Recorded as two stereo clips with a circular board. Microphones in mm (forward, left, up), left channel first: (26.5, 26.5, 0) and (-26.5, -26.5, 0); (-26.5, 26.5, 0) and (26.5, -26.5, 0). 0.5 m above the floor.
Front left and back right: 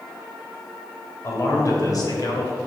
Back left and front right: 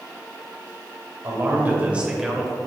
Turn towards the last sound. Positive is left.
turn(degrees=50)